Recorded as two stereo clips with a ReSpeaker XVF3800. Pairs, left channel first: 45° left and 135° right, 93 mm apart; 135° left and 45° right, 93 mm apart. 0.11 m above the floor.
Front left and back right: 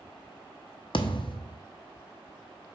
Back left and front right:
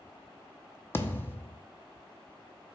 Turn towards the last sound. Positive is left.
turn(degrees=70)